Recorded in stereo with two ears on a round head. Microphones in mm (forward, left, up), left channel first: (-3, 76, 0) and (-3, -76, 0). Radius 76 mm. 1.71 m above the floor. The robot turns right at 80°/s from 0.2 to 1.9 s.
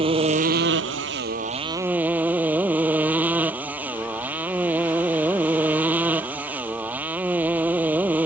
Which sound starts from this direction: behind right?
A motorcycle, at 0.0 s.